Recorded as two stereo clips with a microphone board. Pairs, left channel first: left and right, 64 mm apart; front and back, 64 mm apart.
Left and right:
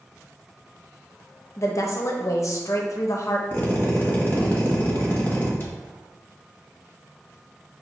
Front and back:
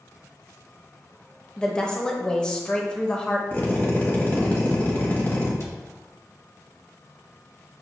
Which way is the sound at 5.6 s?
35° left.